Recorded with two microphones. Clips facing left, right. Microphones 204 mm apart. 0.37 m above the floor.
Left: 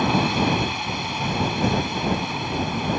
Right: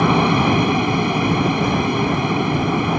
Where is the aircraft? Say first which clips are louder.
Right 5 dB; 65° right (ahead or behind).